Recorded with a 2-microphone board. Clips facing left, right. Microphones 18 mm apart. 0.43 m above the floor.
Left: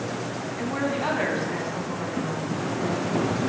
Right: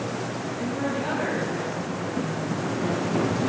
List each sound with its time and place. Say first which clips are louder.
0.6 s a woman speaking: left 2 dB; 50° left (ahead or behind), 4 m